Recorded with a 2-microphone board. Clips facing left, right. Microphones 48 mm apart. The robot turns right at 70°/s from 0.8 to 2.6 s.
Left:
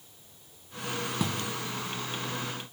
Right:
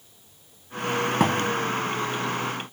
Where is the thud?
60° right (ahead or behind); by 1.5 s 40° right (ahead or behind).